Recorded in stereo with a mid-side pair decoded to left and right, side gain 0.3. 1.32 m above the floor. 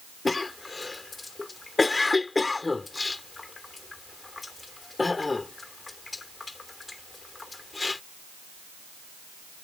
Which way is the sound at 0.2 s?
35° left.